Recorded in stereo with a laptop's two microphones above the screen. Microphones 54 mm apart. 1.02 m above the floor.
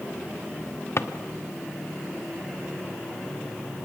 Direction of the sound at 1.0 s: 65° left (ahead or behind).